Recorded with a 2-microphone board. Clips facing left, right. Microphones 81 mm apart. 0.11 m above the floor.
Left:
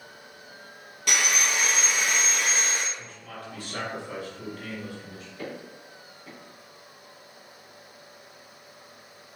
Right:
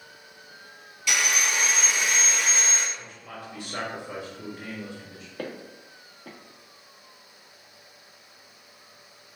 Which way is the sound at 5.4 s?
55° right (ahead or behind).